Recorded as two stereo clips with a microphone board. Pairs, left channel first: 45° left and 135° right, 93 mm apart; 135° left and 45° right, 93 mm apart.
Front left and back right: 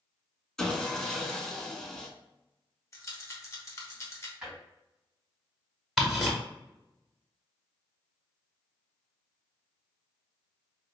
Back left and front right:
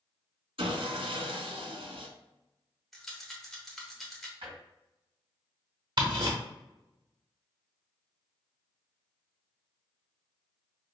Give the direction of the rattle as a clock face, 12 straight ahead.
10 o'clock.